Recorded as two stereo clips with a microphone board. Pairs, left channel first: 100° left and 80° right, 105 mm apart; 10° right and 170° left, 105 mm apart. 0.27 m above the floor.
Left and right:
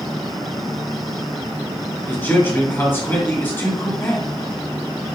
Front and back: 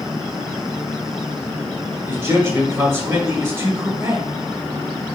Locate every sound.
2.1 s a man speaking: 140° left, 1.5 m